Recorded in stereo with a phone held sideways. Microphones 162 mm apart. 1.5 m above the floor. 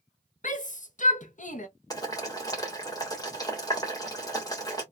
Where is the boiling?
25° left (ahead or behind), 1.4 m.